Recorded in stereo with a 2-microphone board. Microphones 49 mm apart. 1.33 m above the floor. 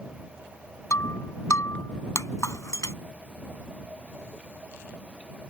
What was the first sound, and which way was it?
Breaking glass, 75° left (ahead or behind).